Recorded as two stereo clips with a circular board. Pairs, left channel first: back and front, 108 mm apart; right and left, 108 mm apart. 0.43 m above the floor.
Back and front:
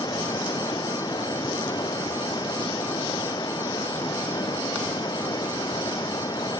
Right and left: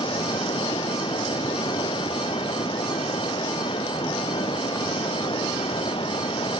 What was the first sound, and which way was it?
Running water, 130° right.